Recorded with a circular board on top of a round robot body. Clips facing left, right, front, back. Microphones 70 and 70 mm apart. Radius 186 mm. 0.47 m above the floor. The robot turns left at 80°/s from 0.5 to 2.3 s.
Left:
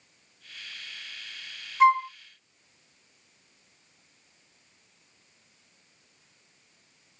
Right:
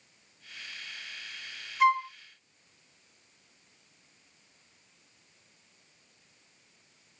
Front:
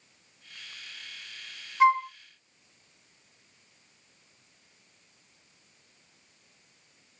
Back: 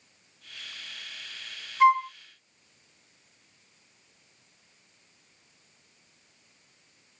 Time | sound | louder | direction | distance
1.8 | a flute | left 4 dB, back 1 dB | 55° left | 1.4 m